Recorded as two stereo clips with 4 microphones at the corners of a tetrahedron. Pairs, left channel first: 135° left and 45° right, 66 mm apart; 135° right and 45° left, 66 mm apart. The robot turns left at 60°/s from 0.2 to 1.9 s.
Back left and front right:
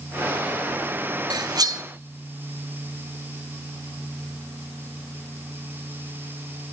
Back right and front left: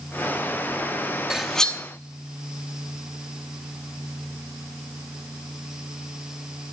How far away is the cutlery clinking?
About 0.6 m.